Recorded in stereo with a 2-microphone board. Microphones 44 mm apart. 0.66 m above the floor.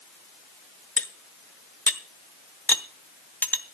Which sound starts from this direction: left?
Cutlery clinking, at 1.0 s.